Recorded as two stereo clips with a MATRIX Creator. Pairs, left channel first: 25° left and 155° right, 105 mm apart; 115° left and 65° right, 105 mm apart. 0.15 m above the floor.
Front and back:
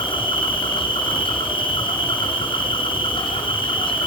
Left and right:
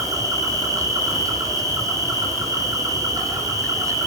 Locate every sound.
0.0 s an insect: 10° right, 8.5 m